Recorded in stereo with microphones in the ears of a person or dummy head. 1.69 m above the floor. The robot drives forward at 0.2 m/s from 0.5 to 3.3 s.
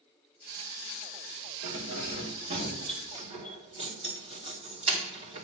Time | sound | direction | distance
1.6 | keys jangling | 35° right (ahead or behind) | 2 m